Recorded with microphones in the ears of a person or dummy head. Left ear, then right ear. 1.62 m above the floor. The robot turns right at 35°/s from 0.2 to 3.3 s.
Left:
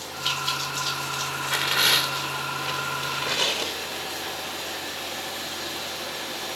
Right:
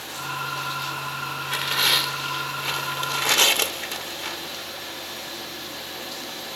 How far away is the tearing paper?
About 1.0 m.